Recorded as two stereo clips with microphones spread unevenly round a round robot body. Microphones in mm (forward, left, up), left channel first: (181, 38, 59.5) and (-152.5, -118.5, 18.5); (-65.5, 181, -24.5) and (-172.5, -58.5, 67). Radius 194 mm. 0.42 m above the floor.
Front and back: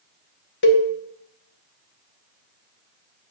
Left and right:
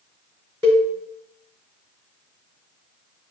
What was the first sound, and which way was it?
A cowbell, 35° right.